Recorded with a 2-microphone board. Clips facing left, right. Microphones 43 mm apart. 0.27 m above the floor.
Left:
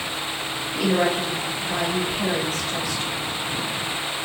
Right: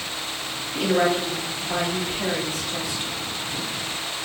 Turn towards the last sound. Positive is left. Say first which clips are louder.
# right 1 dB
turn(degrees=-40)  # may be behind; listen again after turning